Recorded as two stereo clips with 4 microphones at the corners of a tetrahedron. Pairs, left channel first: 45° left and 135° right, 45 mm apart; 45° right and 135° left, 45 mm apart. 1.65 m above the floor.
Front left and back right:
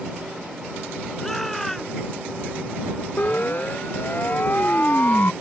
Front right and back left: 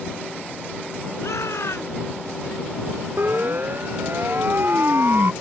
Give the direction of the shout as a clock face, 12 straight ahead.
1 o'clock.